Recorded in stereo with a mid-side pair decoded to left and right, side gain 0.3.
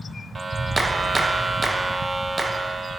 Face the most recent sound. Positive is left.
turn(degrees=-35)